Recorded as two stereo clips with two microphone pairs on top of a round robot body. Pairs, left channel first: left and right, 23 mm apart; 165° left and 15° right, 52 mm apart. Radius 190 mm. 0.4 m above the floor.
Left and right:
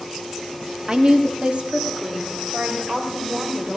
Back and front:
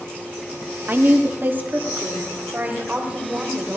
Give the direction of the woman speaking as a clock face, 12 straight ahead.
2 o'clock.